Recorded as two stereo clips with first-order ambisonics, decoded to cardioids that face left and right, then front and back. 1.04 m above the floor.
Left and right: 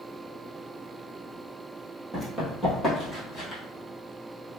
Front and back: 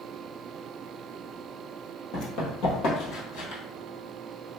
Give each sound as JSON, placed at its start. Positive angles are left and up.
{"t": 2.1, "sound": "running footsteps", "azimuth_deg": 0, "distance_m": 1.5}